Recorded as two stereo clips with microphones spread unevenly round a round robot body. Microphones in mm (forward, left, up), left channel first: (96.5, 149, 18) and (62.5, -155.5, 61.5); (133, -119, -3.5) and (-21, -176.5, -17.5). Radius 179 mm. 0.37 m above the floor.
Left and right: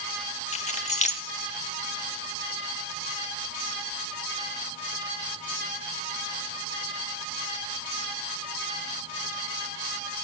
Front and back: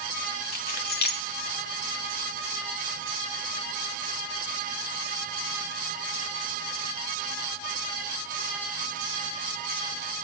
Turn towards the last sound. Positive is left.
turn(degrees=25)